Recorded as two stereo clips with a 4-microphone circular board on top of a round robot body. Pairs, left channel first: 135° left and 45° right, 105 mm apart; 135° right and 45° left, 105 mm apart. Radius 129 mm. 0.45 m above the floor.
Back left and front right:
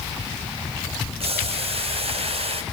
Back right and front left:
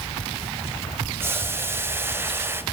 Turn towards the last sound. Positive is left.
turn(degrees=-25)